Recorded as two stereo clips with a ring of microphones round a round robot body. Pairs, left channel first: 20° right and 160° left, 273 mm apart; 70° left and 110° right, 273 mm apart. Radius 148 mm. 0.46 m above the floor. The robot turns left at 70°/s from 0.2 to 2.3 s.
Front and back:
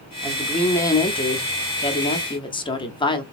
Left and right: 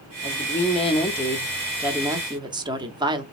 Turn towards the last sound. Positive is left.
turn(degrees=-65)